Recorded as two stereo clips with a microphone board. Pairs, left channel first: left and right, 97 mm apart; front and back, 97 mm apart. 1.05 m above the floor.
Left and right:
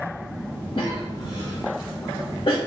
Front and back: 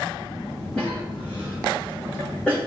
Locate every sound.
0.8 s a cough: 80° left, 1.1 m